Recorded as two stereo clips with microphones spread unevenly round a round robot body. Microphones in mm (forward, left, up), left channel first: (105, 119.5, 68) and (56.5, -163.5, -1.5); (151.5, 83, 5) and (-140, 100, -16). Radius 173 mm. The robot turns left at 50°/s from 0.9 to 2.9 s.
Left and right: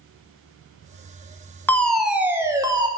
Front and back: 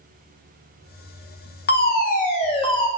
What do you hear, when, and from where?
1.7 s a fire alarm: 20° right, 1.6 m; by 2.9 s 80° right, 1.6 m